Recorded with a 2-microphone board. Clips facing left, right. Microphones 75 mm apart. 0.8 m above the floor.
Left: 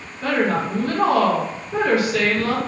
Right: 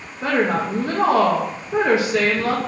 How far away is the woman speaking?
About 0.6 m.